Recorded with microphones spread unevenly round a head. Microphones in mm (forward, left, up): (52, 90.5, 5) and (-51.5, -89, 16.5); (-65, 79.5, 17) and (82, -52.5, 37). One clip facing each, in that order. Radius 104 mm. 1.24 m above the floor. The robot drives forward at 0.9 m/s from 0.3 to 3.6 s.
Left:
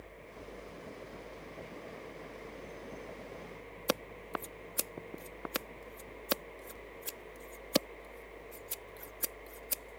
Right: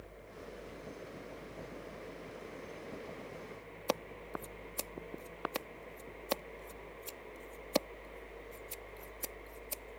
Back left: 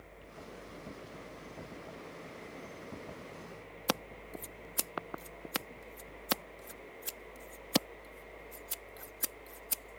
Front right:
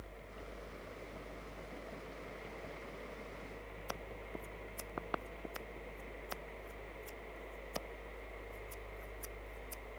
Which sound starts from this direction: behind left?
Scissors, at 3.9 s.